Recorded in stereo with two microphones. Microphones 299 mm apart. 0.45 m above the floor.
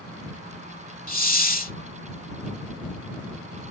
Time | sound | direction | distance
1.1 | a hiss | 30° left (ahead or behind) | ?